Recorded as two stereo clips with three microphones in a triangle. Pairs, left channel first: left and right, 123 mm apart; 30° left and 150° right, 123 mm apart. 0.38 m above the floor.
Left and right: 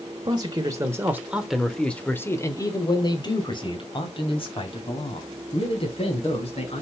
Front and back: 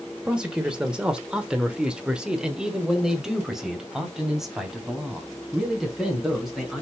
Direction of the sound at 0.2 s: 70° right.